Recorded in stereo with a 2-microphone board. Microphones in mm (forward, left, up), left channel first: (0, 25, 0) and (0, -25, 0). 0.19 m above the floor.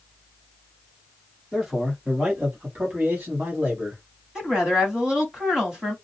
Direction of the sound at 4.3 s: 15° right (ahead or behind).